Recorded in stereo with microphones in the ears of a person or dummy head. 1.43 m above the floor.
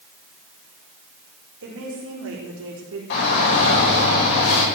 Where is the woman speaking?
75° right (ahead or behind), 5 m; by 3.0 s 85° right, 4.5 m.